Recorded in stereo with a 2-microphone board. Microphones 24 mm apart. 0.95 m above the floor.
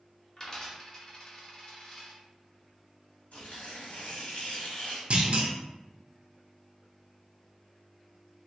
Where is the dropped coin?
25° left (ahead or behind), 1.0 m.